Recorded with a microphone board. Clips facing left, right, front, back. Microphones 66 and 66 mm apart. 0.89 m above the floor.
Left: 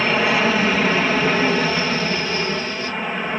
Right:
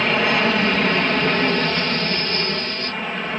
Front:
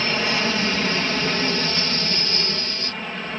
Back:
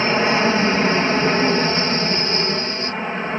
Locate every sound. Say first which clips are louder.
0.0 s an aircraft: left 1 dB, back 6 dB; 175° left; by 3.4 s 160° left